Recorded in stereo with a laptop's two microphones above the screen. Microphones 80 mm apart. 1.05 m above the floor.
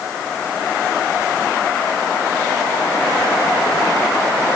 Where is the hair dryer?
I don't hear a hair dryer.